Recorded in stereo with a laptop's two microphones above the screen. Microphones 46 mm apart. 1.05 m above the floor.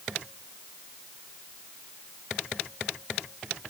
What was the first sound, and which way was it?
Only background noise.